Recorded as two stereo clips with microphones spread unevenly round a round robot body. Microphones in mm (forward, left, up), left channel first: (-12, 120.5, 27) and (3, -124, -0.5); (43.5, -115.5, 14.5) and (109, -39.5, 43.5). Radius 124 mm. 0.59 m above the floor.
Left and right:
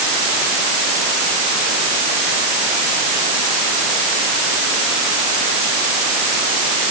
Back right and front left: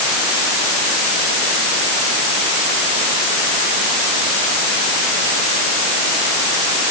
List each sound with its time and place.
Only background noise.